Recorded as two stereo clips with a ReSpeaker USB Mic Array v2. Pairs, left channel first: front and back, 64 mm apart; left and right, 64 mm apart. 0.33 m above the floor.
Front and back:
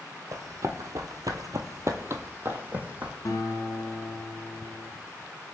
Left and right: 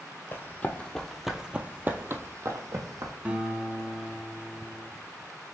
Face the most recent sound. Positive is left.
turn(degrees=-20)